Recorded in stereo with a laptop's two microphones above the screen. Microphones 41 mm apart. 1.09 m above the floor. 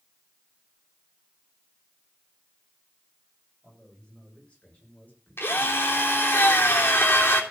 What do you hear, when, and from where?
3.6 s a man speaking: 25° left (ahead or behind), 6 m; by 6.4 s 50° left (ahead or behind), 4 m
5.4 s a drill: 65° left (ahead or behind), 3 m